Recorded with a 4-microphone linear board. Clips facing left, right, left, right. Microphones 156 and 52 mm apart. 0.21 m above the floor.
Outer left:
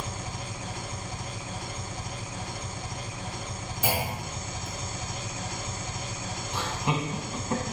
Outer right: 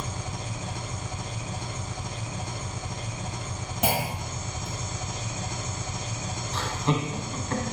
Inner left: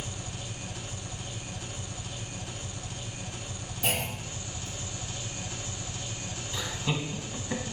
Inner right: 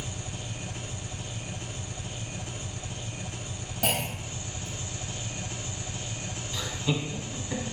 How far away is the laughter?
About 1.3 m.